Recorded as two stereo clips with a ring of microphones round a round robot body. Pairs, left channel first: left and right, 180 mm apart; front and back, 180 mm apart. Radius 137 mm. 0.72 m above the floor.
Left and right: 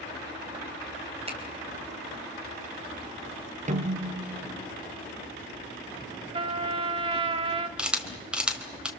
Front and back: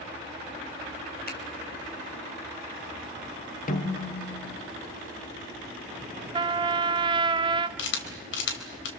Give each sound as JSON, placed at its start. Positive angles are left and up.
{"t": 1.3, "sound": "a finger snap", "azimuth_deg": -35, "distance_m": 5.0}
{"t": 3.7, "sound": "a snare drum", "azimuth_deg": -40, "distance_m": 2.0}
{"t": 6.3, "sound": "a trumpet", "azimuth_deg": -140, "distance_m": 0.5}
{"t": 7.8, "sound": "a camera shutter", "azimuth_deg": -5, "distance_m": 3.5}